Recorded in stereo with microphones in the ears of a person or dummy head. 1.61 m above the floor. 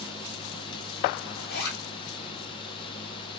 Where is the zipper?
75° left (ahead or behind), 1.5 m.